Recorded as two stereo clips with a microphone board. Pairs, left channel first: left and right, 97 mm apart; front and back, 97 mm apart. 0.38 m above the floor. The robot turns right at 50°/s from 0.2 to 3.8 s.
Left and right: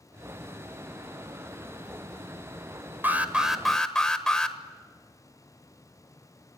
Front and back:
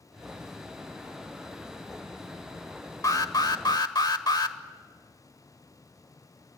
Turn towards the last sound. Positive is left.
turn(degrees=10)